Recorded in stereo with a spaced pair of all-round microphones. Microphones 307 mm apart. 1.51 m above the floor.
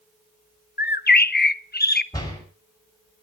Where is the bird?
30° left (ahead or behind), 0.6 m.